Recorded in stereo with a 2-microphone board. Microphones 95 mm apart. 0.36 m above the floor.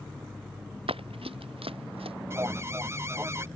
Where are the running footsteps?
75° right (ahead or behind).